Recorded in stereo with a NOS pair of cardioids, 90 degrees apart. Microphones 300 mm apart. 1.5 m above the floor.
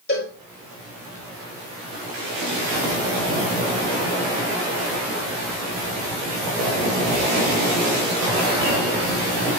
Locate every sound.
0.1 s a cowbell: 30° left, 7 m